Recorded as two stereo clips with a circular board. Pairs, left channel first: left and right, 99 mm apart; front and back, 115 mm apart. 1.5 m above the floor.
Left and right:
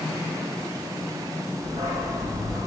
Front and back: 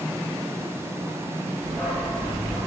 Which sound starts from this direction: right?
A dog barking, at 1.6 s.